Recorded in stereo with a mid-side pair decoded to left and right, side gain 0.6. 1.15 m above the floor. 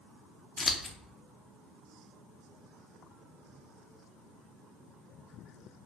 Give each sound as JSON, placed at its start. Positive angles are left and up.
{"t": 0.6, "sound": "scissors", "azimuth_deg": 20, "distance_m": 0.6}